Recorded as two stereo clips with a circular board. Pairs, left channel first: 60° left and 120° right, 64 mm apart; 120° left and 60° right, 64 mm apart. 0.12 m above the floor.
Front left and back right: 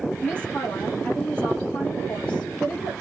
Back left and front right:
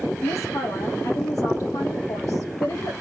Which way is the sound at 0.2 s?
130° left.